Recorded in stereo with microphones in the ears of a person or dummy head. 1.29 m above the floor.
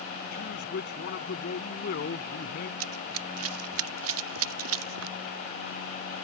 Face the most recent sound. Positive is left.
turn(degrees=-85)